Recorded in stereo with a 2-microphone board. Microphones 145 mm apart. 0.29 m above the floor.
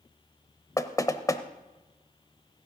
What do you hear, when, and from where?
0.8 s knocking: 25° left (ahead or behind), 0.8 m